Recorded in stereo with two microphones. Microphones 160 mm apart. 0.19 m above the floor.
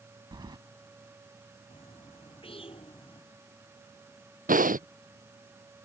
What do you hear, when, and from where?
0.3 s keys jangling: 30° right (ahead or behind)
1.7 s a bird: 35° left (ahead or behind)
4.5 s breathing: 55° right (ahead or behind)